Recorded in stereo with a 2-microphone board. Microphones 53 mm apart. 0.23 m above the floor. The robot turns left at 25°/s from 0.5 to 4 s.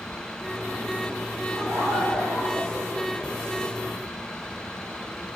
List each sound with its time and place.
1.5 s laughter: 90° right, 9.5 m; by 3.5 s 140° right, 9.5 m